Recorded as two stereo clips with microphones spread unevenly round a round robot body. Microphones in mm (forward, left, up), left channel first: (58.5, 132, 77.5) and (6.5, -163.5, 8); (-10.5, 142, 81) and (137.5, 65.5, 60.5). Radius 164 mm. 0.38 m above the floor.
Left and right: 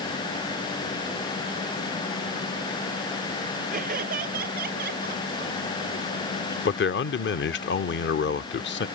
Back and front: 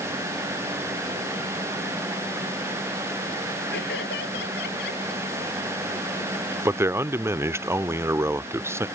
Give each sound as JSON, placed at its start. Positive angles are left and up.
{"t": 3.7, "sound": "laughter", "azimuth_deg": -165}
{"t": 6.7, "sound": "a man speaking", "azimuth_deg": 30}